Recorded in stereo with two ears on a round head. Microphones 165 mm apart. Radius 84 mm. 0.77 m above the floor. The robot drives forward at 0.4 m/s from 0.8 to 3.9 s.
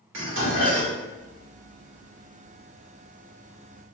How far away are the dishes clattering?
About 1.9 m.